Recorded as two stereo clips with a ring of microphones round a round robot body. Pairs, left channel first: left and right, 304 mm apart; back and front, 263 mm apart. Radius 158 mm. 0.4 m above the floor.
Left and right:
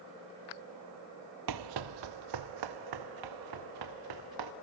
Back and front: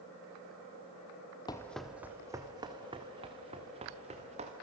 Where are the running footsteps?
105° right, 0.6 m; by 4.5 s 70° right, 3 m.